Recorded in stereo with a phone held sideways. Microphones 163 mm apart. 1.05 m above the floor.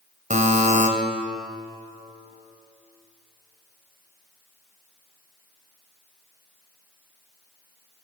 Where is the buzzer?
50° right (ahead or behind), 3.5 m.